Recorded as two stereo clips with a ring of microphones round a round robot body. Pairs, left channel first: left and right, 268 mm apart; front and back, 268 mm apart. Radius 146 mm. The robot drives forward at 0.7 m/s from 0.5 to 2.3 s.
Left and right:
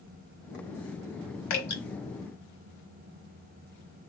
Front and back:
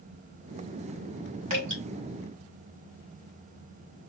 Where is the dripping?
115° left, 2.5 m; by 1.8 s 120° left, 2.5 m.